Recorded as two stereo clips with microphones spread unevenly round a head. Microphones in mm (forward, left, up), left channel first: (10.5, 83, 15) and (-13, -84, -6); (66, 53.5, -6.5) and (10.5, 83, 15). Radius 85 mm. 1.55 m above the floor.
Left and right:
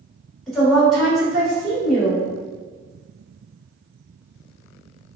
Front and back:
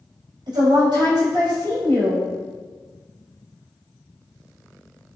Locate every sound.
0.5 s a woman speaking: 170° left, 1.6 m